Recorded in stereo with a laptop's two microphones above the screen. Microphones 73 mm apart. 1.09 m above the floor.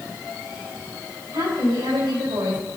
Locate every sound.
1.3 s a woman speaking: 70° right (ahead or behind), 5 m